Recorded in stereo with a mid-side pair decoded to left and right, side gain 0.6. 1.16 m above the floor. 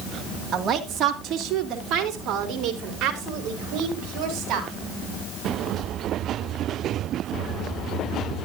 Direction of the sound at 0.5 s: 45° right.